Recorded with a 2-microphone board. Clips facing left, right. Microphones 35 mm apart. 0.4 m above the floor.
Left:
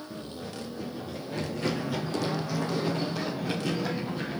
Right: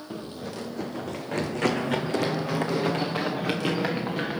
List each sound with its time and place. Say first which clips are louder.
0.1 s running footsteps: right 6 dB; 60° right (ahead or behind), 1.0 m; by 4.4 s 65° right (ahead or behind), 4 m